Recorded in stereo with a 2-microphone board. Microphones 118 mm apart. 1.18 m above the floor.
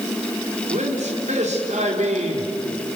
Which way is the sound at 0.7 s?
80° right.